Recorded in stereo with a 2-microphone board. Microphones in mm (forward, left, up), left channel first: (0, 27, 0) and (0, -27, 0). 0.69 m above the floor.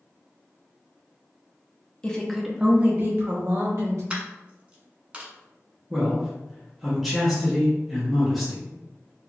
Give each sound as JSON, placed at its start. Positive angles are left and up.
{"t": 2.0, "sound": "a woman speaking", "side_deg": 20, "distance_m": 0.6}
{"t": 4.1, "sound": "a dropped coin", "side_deg": -20, "distance_m": 0.8}
{"t": 5.9, "sound": "a man speaking", "side_deg": 0, "distance_m": 0.7}